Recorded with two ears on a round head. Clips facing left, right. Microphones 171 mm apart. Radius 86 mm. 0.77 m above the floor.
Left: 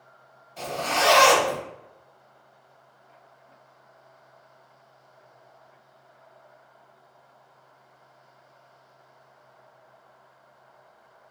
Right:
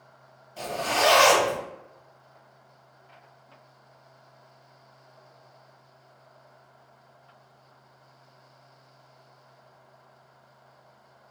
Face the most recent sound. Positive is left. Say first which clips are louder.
# even
turn(degrees=-10)  # may be behind; listen again after turning